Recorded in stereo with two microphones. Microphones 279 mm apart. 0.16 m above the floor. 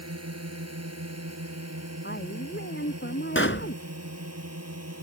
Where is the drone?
60° right (ahead or behind).